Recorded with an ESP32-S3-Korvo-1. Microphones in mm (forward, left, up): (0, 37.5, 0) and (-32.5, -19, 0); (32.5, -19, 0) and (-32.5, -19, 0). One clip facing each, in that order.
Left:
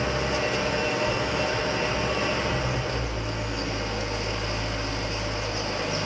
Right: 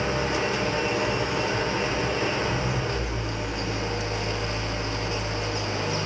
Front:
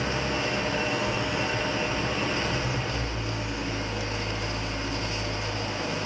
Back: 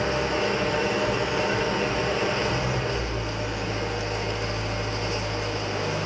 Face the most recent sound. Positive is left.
turn(degrees=-175)